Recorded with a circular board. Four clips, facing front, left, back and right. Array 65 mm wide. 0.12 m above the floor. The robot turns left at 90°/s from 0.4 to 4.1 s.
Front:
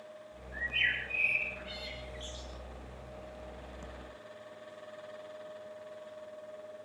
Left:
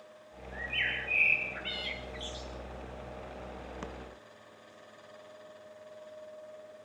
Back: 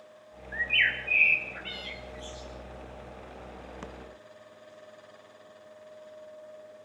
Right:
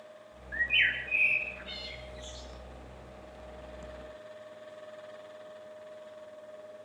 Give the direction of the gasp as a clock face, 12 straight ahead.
No gasp in this recording.